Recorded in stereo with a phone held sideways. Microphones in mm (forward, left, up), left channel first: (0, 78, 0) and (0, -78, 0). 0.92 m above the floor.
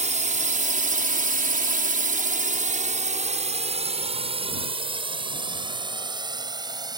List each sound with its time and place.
0.0 s a drone: 50° right (ahead or behind); by 7.0 s 25° right (ahead or behind)